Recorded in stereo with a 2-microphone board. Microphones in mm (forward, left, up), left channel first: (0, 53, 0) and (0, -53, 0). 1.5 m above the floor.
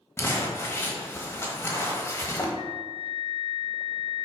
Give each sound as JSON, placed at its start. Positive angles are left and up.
{"t": 0.2, "sound": "crumpling", "side_deg": 20, "distance_m": 1.3}
{"t": 2.5, "sound": "a flute", "side_deg": -60, "distance_m": 1.7}